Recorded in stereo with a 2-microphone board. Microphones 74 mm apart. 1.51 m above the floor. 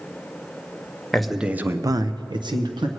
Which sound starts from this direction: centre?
A man speaking, at 1.1 s.